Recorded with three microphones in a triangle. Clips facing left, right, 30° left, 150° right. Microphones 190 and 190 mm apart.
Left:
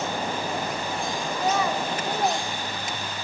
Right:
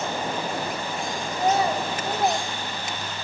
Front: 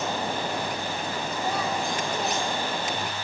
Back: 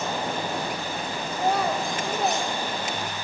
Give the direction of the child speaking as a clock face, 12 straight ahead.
5 o'clock.